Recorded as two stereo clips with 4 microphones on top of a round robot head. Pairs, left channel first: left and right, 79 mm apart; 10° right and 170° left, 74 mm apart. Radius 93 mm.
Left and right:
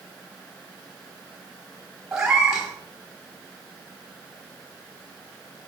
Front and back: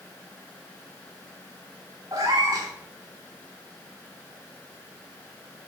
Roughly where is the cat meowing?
Behind.